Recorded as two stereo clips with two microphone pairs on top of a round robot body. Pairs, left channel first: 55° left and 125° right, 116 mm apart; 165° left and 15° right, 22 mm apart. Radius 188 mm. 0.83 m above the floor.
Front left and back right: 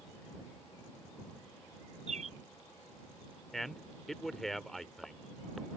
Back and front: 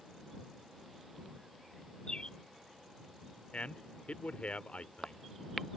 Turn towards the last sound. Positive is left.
turn(degrees=145)